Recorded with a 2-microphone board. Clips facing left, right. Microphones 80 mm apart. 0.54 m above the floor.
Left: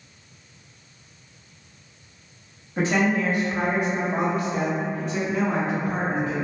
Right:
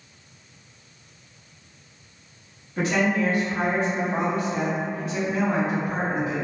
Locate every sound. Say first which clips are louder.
2.8 s a woman speaking: left 1 dB; 25° left (ahead or behind), 1.0 m; by 6.3 s 10° right (ahead or behind), 1.8 m